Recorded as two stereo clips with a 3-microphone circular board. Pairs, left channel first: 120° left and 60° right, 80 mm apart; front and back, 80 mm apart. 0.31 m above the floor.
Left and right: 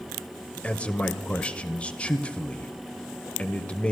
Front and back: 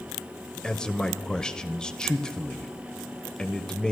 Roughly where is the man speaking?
Left.